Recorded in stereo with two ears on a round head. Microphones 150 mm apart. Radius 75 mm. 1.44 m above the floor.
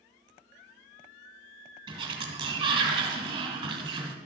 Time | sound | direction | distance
1.9 | a sliding door | 30° right (ahead or behind) | 2 m